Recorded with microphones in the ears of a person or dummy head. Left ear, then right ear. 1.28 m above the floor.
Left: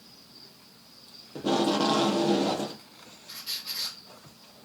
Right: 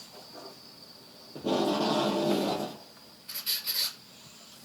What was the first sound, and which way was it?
Tape being pulled, 30° left (ahead or behind).